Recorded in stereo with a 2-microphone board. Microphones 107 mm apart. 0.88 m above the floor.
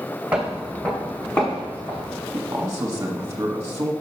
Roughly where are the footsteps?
Centre.